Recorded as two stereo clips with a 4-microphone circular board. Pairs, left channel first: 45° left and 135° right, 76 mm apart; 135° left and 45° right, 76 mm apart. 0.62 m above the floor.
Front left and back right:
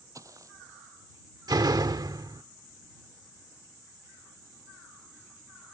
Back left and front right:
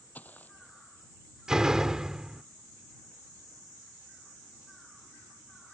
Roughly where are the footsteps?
Behind.